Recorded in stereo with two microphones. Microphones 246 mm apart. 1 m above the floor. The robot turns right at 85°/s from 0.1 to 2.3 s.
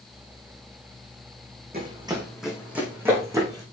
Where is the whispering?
No whispering in this recording.